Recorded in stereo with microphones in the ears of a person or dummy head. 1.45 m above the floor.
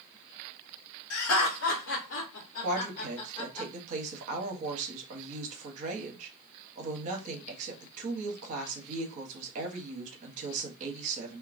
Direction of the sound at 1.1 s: 85° left.